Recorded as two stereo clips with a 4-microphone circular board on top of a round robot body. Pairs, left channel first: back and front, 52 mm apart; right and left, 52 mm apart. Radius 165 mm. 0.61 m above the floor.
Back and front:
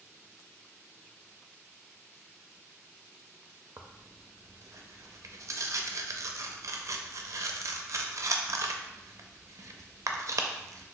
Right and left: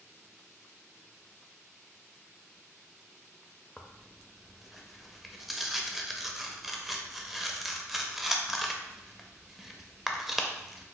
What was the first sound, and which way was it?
Tearing paper, 5° left.